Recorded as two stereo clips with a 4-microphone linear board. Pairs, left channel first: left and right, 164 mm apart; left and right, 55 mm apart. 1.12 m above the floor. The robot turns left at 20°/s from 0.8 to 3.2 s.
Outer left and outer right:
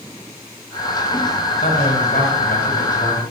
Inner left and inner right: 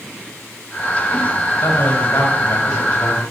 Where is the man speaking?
140° left, 3.5 m; by 3.2 s 105° left, 3.5 m.